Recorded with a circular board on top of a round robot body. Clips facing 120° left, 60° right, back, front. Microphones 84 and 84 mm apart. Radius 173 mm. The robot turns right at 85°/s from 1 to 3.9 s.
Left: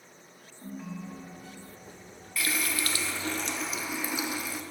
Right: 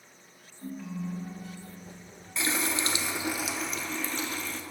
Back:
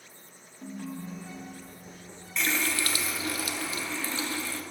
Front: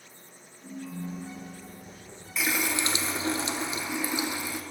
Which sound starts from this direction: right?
A running tap, at 2.4 s.